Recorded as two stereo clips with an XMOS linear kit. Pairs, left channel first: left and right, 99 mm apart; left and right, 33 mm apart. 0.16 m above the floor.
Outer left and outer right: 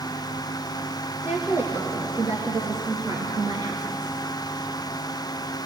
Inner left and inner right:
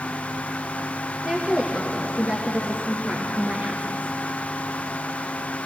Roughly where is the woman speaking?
Right.